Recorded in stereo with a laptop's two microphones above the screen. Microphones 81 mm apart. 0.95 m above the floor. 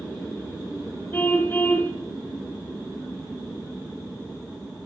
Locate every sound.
1.1 s a car horn: 25° left (ahead or behind), 2 m